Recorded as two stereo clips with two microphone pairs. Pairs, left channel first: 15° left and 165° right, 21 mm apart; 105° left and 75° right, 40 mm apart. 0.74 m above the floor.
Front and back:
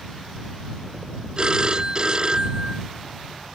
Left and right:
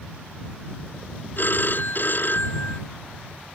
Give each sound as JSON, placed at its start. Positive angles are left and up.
{"t": 1.4, "sound": "a phone ringing", "azimuth_deg": 145}